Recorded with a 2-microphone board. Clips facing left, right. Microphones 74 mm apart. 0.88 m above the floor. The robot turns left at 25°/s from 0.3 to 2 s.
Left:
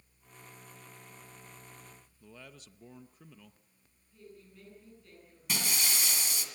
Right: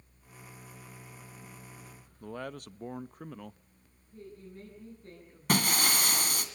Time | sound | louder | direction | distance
2.2 | a man speaking | right 13 dB | 55° right (ahead or behind) | 0.5 m
4.1 | a woman speaking | right 6 dB | 40° right (ahead or behind) | 9.5 m
5.5 | breaking glass | right 7 dB | 55° right (ahead or behind) | 2 m